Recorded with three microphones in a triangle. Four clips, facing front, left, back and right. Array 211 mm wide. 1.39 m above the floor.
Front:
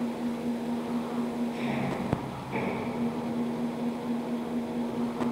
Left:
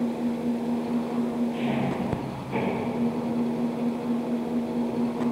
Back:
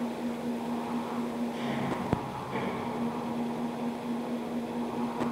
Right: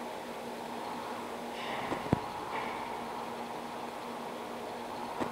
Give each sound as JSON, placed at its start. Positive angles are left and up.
{"t": 0.0, "sound": "an engine running", "azimuth_deg": 85}